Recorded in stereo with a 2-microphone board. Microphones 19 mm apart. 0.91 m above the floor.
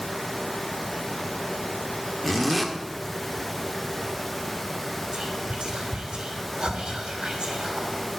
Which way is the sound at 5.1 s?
80° right.